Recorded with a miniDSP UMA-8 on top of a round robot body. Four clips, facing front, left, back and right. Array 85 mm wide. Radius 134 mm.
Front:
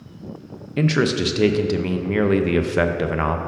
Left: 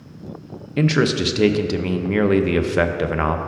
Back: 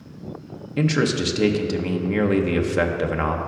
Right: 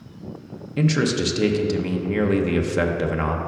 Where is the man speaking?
60° left, 0.5 m.